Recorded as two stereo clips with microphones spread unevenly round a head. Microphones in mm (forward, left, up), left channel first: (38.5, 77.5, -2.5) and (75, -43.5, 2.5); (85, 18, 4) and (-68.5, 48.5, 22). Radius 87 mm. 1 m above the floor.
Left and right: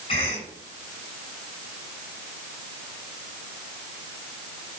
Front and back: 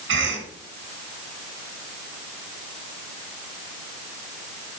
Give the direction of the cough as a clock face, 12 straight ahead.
6 o'clock.